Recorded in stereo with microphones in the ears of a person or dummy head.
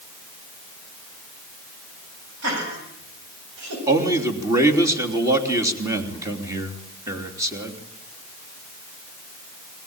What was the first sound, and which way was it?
Laughter, 75° right (ahead or behind).